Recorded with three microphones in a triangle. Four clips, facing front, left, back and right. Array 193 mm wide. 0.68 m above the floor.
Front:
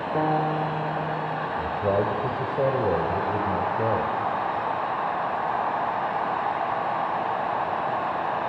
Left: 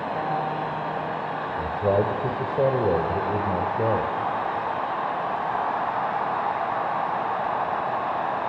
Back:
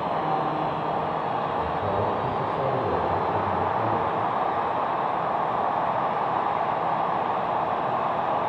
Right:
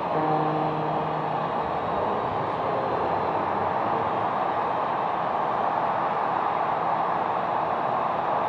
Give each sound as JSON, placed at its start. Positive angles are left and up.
{"t": 0.1, "sound": "a piano", "azimuth_deg": -30, "distance_m": 1.3}
{"t": 1.6, "sound": "a man speaking", "azimuth_deg": 65, "distance_m": 2.5}